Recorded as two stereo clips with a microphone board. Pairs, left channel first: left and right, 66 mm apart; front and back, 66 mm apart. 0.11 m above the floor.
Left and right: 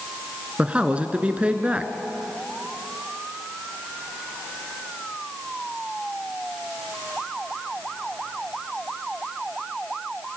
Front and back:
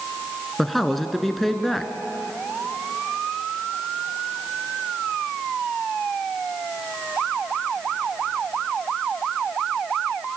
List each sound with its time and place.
0.6 s a man speaking: 80° right, 1.5 m